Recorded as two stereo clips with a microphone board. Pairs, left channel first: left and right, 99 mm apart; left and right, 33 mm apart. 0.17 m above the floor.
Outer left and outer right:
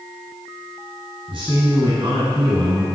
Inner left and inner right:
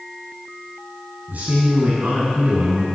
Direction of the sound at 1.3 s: 55° right (ahead or behind).